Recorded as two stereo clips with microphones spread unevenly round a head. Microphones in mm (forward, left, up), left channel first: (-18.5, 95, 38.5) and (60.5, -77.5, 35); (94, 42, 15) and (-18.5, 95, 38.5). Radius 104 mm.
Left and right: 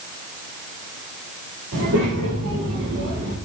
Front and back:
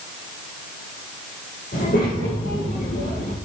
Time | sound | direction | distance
1.7 | a child speaking | 60° right | 3.5 m